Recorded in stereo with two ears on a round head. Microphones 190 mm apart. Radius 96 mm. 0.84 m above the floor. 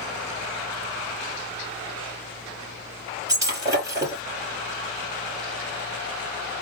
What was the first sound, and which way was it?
Breaking glass, 15° right (ahead or behind).